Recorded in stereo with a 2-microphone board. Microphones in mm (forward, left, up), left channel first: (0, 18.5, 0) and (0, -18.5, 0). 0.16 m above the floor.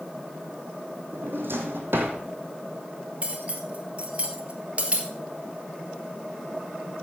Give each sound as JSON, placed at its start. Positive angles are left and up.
{"t": 1.1, "sound": "a drawer", "side_deg": -80, "distance_m": 1.9}
{"t": 3.2, "sound": "cutlery clinking", "side_deg": -35, "distance_m": 1.7}